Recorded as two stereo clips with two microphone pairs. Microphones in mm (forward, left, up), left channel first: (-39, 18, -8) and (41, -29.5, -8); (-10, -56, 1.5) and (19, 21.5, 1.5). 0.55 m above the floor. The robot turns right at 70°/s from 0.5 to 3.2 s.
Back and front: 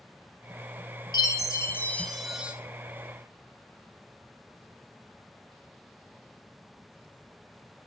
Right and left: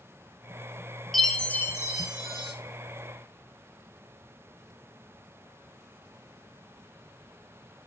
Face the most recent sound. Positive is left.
turn(degrees=-55)